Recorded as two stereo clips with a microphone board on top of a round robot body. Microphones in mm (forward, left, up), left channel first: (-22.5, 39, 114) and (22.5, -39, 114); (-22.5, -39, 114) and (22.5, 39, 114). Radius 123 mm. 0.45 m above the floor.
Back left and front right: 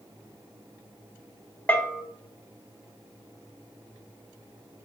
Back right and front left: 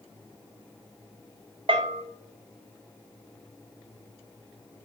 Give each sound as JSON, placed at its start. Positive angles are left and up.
{"t": 1.7, "sound": "a bell", "azimuth_deg": 50, "distance_m": 0.8}